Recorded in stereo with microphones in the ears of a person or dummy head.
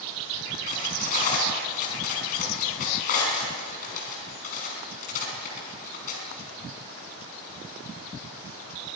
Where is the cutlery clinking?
55° left (ahead or behind), 5.5 m.